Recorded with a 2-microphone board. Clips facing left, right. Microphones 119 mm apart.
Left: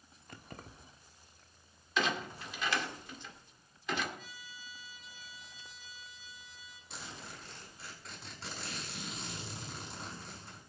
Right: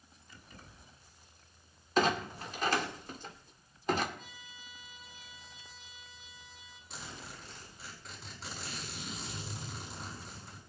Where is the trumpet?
65° right (ahead or behind), 3 m.